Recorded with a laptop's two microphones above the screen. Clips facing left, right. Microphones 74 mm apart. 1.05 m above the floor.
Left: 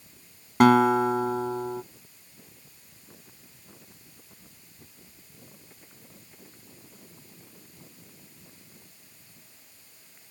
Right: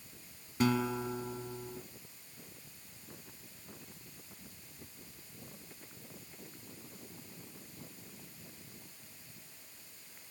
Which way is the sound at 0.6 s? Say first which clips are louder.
Left 14 dB; 70° left (ahead or behind).